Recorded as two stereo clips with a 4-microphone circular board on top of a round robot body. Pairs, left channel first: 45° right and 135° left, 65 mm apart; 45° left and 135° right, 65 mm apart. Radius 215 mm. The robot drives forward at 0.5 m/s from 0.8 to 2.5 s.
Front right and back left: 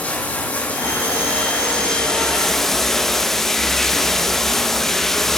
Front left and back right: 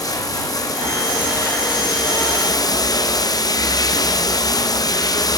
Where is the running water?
25° left, 2 m; by 5.4 s 40° left, 1.4 m.